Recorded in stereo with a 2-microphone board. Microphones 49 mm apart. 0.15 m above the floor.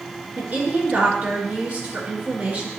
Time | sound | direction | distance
0.4 | a woman speaking | 30° right (ahead or behind) | 2.5 m